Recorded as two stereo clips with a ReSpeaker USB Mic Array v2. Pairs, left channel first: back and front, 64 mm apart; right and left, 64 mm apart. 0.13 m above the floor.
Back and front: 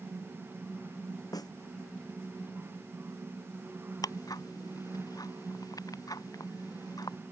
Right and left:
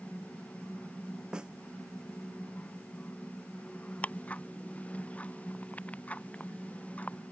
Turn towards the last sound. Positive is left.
turn(degrees=-155)